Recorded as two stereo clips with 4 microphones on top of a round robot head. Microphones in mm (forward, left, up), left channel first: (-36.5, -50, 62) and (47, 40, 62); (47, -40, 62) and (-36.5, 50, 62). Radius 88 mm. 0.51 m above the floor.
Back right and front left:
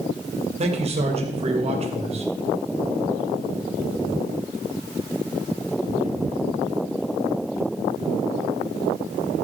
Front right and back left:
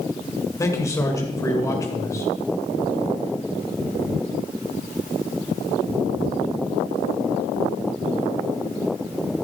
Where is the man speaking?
20° left, 2.5 m.